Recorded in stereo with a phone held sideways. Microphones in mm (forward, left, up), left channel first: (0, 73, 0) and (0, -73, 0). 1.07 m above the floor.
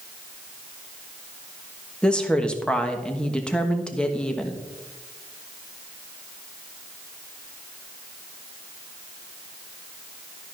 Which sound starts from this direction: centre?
A woman speaking, at 2.0 s.